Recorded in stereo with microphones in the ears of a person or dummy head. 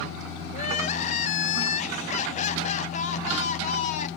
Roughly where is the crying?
Left.